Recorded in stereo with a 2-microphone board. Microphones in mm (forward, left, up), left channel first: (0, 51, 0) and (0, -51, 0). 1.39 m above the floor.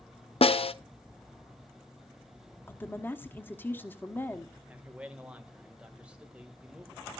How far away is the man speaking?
About 1.9 m.